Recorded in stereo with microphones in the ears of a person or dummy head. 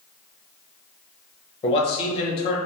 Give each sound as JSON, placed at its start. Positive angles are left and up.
{"t": 1.6, "sound": "a man speaking", "side_deg": 35, "distance_m": 0.9}